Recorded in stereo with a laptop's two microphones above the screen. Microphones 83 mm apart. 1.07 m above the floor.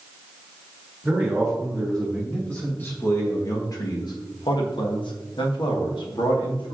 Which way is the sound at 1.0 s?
Centre (ahead or behind).